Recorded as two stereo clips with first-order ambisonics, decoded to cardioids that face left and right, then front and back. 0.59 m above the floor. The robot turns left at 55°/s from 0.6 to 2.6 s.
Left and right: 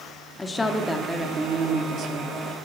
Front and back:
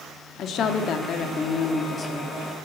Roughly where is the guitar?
No guitar in this recording.